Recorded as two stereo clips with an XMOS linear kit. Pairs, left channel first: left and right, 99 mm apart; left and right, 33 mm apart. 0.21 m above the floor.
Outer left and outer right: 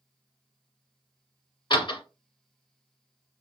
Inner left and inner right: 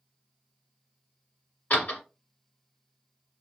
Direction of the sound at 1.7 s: 55° left (ahead or behind).